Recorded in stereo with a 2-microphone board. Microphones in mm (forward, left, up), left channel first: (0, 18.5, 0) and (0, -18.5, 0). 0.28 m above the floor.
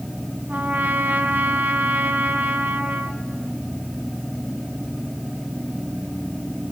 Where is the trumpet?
55° right (ahead or behind), 1.9 m.